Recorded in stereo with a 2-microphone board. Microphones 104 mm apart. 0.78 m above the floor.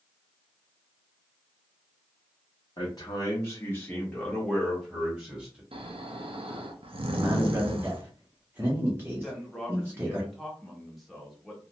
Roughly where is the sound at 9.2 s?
Centre.